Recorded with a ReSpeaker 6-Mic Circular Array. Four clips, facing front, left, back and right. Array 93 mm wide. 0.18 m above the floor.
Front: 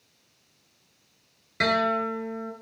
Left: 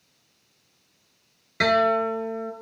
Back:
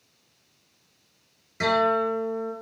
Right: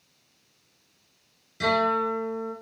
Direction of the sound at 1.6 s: 65° left.